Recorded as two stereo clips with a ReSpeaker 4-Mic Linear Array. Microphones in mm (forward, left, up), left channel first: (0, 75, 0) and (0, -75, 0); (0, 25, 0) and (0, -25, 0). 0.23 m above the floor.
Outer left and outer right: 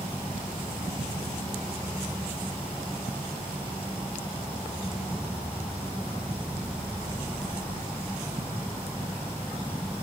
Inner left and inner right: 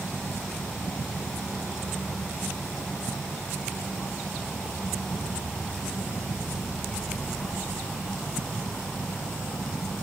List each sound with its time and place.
0.0 s an insect: 10° right (ahead or behind), 1.6 m